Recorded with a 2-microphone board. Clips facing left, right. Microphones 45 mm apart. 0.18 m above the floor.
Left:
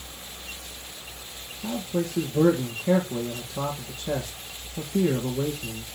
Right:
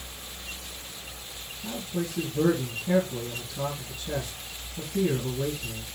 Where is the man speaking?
65° left (ahead or behind), 3 m.